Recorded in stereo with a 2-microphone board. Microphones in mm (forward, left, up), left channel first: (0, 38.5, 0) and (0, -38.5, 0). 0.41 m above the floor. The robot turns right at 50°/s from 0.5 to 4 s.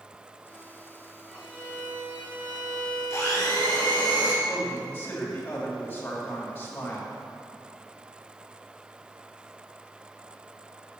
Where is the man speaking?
25° left (ahead or behind), 2.5 m.